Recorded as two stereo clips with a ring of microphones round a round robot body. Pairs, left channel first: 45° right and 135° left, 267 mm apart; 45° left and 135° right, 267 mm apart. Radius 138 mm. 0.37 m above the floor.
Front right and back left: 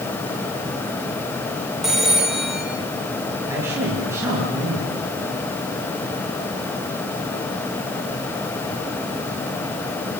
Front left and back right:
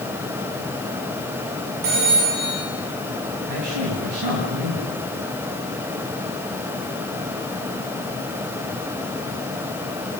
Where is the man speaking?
145° right, 7.5 m.